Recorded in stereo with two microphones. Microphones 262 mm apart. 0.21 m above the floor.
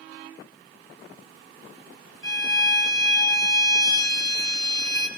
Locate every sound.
2.2 s a violin: 60° right (ahead or behind), 3 m